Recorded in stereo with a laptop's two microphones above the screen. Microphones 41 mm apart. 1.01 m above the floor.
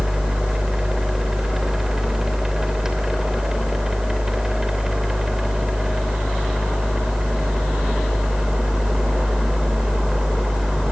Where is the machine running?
10° right (ahead or behind), 3 m.